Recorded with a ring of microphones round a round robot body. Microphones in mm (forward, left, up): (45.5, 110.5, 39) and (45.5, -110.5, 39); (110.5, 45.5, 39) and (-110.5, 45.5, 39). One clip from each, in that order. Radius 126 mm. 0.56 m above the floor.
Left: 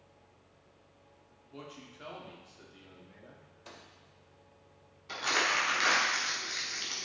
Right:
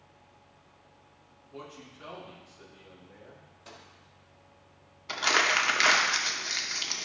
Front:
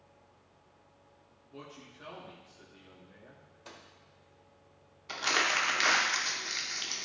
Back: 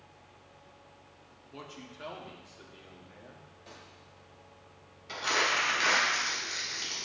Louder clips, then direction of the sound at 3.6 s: Right 2 dB, front 1 dB; 10° left.